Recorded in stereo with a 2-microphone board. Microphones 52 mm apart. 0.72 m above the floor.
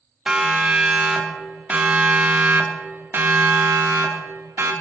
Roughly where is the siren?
Centre.